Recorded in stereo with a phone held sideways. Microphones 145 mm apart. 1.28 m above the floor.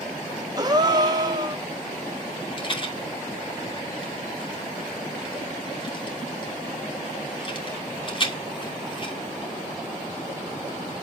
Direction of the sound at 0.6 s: 30° right (ahead or behind).